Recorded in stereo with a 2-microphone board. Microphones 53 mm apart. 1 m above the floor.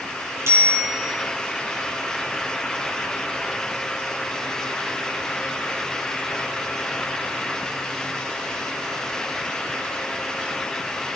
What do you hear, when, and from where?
0.5 s a bicycle bell: 75° right (ahead or behind), 5.5 m